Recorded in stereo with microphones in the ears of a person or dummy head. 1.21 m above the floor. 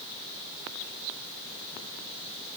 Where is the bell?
No bell in this recording.